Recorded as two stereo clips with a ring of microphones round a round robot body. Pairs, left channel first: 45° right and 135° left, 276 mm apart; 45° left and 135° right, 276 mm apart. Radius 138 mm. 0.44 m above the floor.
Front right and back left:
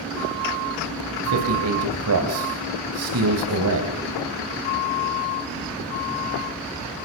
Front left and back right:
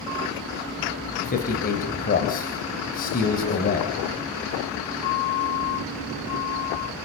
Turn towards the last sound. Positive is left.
turn(degrees=105)